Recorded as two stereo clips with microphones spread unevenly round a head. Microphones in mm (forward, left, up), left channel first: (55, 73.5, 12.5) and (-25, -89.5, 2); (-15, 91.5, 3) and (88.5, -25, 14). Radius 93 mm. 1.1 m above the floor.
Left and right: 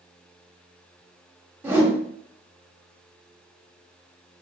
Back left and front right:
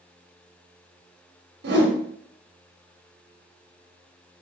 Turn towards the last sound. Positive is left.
turn(degrees=-35)